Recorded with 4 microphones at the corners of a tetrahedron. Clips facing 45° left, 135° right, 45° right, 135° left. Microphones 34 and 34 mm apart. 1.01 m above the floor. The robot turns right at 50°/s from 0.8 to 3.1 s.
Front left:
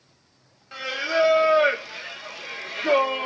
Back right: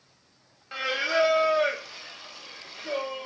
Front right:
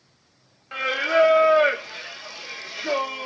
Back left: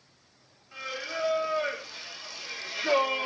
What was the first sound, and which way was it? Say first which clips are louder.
Singing: front left 1 dB, front right 14 dB; 55° right.